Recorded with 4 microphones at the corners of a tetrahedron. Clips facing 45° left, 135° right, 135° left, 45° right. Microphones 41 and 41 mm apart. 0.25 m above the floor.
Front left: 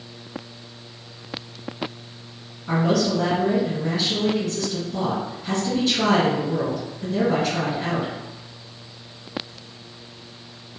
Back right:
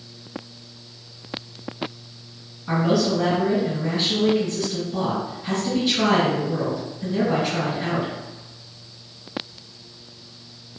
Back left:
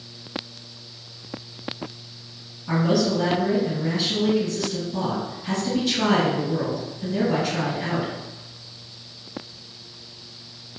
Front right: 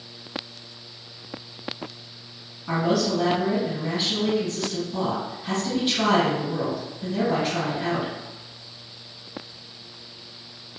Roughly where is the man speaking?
Ahead right.